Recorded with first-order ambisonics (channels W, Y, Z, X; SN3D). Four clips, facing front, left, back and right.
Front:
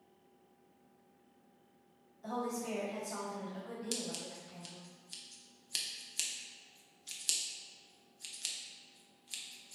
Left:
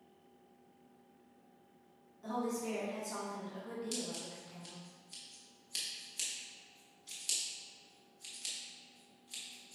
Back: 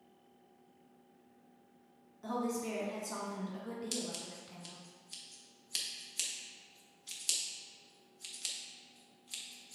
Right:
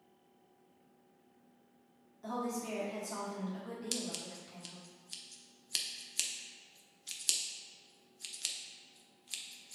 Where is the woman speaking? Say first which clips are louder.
Left 1 dB, back 2 dB; 170° right, 1.4 m.